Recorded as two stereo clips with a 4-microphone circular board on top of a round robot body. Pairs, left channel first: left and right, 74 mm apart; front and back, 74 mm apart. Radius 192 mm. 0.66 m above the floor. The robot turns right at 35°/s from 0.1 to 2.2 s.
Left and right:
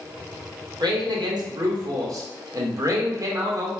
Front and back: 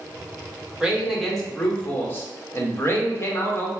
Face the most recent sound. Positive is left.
turn(degrees=-55)